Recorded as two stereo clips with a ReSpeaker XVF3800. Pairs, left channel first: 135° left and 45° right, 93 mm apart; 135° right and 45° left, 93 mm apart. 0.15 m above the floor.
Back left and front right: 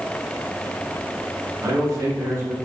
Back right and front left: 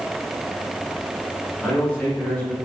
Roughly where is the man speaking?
Right.